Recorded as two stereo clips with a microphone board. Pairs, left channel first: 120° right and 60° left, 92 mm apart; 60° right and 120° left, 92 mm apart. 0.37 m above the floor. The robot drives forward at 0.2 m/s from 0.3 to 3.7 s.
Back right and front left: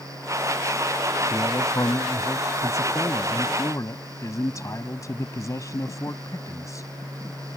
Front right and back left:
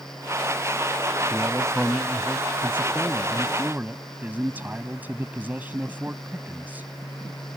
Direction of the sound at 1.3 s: 170° right.